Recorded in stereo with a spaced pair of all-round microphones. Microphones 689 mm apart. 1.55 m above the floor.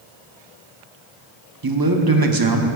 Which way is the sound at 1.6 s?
30° right (ahead or behind).